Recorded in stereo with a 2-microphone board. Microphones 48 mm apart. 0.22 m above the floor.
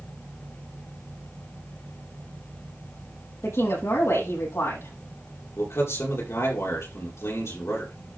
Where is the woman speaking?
80° left, 6.5 m.